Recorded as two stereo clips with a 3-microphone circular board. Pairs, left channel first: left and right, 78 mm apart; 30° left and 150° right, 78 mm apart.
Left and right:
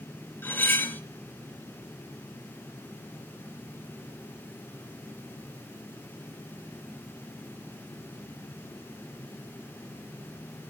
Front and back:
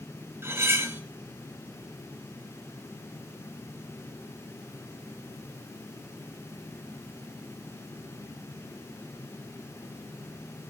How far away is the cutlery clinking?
About 1.2 m.